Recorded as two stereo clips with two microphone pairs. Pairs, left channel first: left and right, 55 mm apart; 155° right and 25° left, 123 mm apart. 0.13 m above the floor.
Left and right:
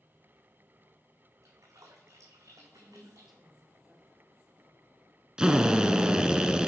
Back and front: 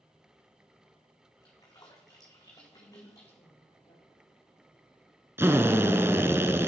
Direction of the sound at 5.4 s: 30° right.